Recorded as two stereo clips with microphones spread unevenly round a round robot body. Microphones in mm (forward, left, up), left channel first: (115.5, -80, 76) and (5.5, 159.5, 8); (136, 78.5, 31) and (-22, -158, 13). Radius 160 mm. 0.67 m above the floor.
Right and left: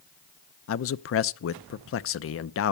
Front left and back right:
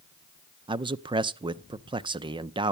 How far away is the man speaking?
About 0.5 m.